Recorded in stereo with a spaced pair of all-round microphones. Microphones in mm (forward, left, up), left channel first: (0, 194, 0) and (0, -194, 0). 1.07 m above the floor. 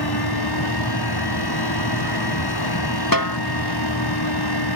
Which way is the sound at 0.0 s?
75° left (ahead or behind).